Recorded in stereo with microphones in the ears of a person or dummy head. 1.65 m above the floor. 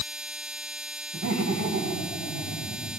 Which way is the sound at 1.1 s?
40° right (ahead or behind).